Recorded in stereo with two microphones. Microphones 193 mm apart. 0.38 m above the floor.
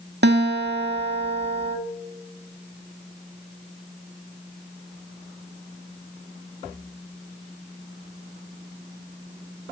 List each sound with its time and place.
0.2 s a guitar: 60° right (ahead or behind), 0.6 m